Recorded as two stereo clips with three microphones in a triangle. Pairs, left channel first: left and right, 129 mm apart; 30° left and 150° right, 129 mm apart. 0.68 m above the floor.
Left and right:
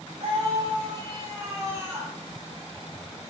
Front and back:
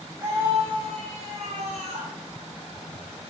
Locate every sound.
0.2 s a scream: 90° right, 1.6 m; by 2.1 s 165° right, 3 m